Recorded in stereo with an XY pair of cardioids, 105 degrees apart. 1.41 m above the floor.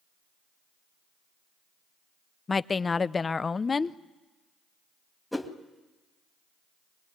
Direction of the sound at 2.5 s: 30° left.